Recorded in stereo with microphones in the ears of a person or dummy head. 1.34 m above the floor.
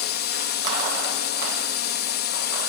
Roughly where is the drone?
Left.